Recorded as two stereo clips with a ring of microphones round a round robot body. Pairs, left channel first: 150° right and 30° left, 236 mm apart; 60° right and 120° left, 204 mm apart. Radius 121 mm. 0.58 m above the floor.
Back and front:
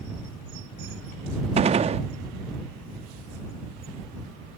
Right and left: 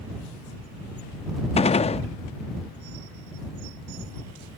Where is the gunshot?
20° right.